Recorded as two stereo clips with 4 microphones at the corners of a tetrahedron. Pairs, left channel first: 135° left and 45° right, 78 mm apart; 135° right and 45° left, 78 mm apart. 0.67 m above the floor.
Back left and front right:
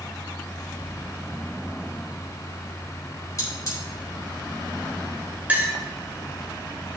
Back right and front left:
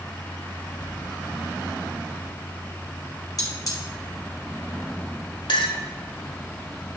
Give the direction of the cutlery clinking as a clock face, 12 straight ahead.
6 o'clock.